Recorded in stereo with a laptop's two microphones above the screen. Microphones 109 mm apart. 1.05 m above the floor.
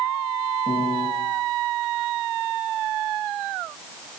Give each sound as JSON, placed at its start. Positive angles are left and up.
{"t": 0.7, "sound": "a piano", "side_deg": 60, "distance_m": 6.5}